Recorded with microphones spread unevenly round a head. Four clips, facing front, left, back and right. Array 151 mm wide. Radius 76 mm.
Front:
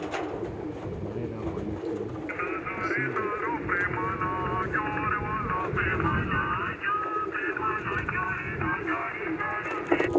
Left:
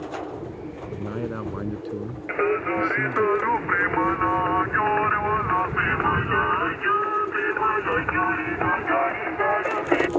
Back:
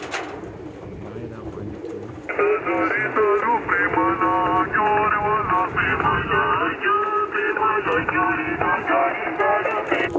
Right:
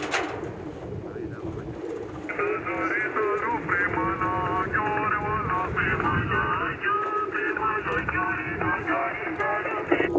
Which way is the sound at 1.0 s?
90° left.